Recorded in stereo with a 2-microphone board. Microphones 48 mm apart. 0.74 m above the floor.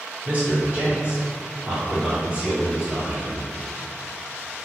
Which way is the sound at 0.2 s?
30° right (ahead or behind).